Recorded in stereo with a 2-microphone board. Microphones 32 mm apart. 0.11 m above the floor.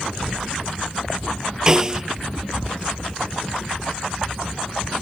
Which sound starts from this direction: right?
A snare drum, at 1.7 s.